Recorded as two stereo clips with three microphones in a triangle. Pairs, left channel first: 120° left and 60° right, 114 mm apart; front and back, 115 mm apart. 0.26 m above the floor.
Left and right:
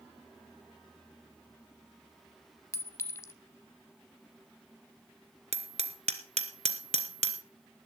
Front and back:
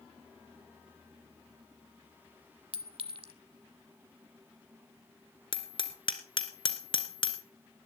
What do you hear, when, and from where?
2.7 s a clink: straight behind, 0.9 m
5.5 s hammering: 40° right, 1.3 m